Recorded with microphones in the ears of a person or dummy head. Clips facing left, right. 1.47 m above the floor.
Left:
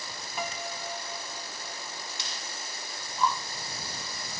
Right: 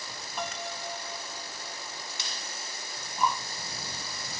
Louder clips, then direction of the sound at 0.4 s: Even; 5° left (ahead or behind).